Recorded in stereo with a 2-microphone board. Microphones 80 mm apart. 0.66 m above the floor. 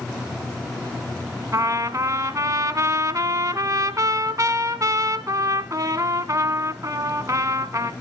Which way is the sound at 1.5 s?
45° right (ahead or behind).